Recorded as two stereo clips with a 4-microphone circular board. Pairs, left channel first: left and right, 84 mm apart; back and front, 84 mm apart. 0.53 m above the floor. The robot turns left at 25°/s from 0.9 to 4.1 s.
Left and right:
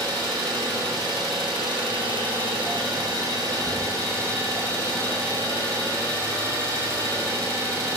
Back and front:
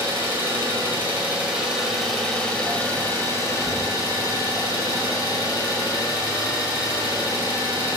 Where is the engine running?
60° right, 1.6 m; by 8.0 s 140° right, 1.6 m.